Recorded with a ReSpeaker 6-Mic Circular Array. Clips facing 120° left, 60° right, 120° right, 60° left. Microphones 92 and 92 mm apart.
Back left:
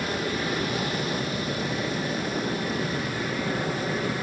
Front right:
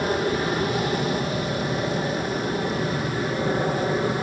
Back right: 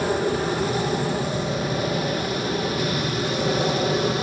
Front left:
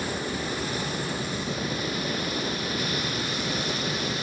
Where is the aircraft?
110° right; by 4.2 s 115° right.